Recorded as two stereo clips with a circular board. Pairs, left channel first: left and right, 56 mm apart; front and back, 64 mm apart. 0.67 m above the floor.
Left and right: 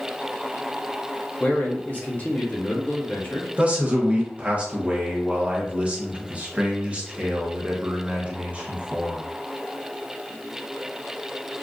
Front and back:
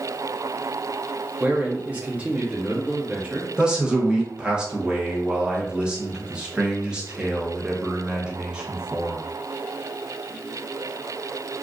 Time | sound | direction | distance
1.4 | a man speaking | 130° left | 0.8 m
3.6 | a man speaking | 120° right | 0.9 m